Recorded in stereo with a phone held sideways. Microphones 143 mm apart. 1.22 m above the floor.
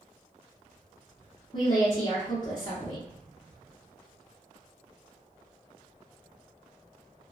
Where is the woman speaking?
35° left (ahead or behind), 0.7 m.